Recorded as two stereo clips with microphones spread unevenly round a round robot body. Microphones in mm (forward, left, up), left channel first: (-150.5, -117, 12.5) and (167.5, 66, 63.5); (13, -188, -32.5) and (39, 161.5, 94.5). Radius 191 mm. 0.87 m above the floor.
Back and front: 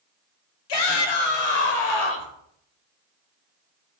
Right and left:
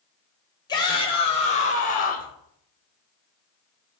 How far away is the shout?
About 4 m.